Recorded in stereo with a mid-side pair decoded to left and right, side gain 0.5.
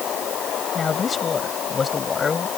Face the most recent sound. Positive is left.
turn(degrees=30)